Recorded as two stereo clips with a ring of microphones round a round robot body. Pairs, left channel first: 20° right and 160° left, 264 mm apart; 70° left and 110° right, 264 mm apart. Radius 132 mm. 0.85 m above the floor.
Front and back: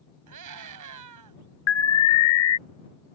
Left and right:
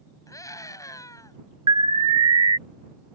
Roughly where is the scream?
Behind left.